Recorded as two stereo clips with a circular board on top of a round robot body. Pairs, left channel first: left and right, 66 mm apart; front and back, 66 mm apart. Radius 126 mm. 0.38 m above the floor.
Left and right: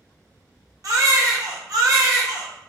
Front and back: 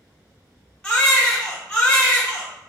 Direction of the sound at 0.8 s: 75° right.